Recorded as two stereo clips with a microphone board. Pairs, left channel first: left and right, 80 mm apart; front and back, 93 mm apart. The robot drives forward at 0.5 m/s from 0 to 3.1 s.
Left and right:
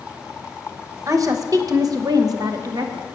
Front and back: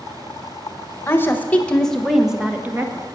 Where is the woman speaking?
55° right, 1.1 m; by 3.1 s 120° right, 1.1 m.